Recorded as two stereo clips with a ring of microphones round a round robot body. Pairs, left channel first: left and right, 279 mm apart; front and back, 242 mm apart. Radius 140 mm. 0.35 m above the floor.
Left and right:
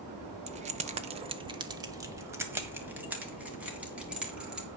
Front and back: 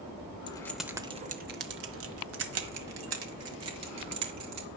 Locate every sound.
0.5 s keys jangling: 50° right, 0.7 m; by 4.7 s 175° right, 2.5 m